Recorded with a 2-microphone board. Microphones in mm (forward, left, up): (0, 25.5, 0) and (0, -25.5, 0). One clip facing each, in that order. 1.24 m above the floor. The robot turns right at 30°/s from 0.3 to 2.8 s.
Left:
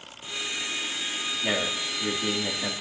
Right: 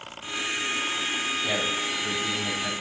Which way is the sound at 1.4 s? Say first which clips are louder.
Right 1 dB; 60° left.